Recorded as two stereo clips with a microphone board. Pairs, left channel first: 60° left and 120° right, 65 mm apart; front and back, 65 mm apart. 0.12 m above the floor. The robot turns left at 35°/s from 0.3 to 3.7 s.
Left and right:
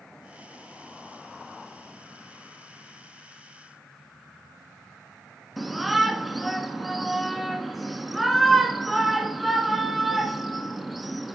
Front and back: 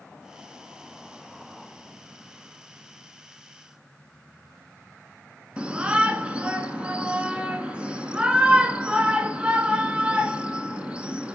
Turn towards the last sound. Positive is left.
turn(degrees=155)